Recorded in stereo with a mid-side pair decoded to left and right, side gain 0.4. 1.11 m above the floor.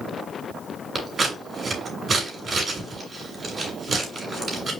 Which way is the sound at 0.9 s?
35° right.